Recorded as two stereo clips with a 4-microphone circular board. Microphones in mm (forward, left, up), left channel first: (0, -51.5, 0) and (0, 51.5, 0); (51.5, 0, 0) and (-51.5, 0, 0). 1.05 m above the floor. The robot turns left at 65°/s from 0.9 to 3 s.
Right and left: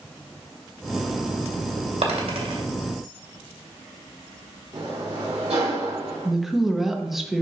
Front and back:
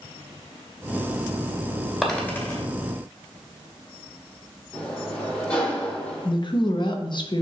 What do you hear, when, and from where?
2.0 s a dropped coin: 95° left, 2.5 m; by 2.6 s 55° left, 2.5 m
4.7 s a sliding door: 80° left, 3 m
6.2 s a woman speaking: straight ahead, 0.9 m